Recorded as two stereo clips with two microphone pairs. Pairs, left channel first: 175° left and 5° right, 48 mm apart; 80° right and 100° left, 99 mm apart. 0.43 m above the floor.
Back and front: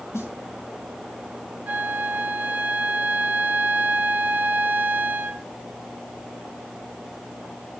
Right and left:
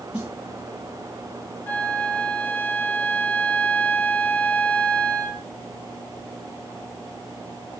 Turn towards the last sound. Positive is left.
turn(degrees=-15)